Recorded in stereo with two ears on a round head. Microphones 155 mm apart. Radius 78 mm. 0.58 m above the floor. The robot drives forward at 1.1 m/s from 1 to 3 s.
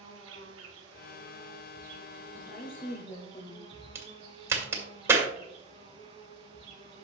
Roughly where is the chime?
I don't hear a chime.